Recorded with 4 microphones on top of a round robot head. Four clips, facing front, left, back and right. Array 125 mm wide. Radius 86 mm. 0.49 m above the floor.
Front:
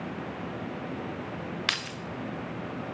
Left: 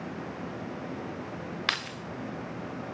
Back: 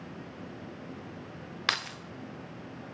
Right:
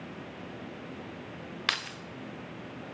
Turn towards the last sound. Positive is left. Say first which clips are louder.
# even, back 1 dB
turn(degrees=160)